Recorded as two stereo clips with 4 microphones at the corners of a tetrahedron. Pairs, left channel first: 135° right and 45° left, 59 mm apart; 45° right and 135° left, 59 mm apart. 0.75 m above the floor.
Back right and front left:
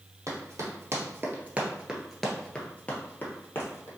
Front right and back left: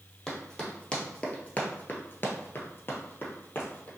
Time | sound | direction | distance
0.3 | running footsteps | 35° left | 1.3 m